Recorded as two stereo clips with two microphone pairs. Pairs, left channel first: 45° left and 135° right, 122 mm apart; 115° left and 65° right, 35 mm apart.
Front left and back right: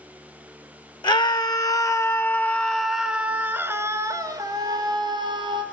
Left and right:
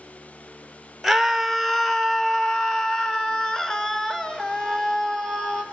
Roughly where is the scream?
Ahead left.